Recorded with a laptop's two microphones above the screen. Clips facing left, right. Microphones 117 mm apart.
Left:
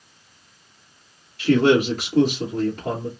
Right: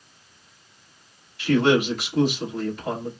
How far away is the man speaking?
About 2.5 m.